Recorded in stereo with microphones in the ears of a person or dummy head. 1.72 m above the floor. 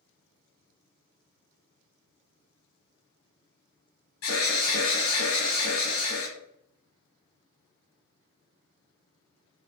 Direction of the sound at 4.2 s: 80° left.